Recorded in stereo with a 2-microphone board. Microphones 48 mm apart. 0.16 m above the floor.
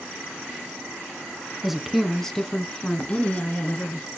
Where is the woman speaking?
5° right (ahead or behind), 1.2 m; by 4.1 s 35° left (ahead or behind), 2 m.